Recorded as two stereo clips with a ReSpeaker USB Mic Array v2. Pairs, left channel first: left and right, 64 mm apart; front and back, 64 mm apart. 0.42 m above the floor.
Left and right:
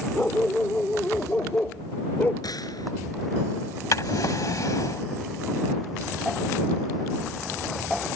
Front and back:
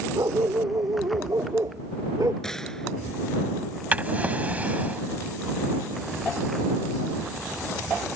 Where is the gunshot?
80° left.